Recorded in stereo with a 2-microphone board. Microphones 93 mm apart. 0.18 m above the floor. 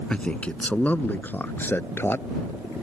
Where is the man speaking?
10° left (ahead or behind); by 2.3 s 25° left (ahead or behind).